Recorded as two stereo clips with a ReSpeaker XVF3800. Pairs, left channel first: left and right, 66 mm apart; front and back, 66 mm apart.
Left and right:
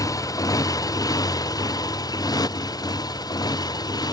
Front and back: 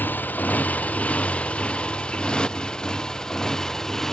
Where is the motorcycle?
60° left; by 4.1 s 85° left.